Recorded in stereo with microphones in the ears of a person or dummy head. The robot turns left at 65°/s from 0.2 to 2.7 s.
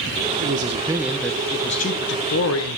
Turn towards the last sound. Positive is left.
turn(degrees=80)